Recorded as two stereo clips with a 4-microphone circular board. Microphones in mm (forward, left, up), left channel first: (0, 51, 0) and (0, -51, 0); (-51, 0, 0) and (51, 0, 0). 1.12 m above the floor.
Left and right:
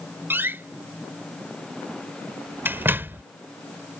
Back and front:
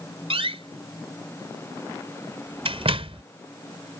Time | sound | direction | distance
0.3 | a door slam | 20° right | ?